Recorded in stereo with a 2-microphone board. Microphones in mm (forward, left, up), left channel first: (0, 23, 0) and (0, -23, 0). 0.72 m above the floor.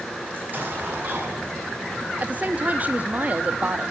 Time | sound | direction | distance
0.3 | an explosion | 40° right (ahead or behind) | 6.5 m
2.2 | a woman speaking | 35° right (ahead or behind) | 1.0 m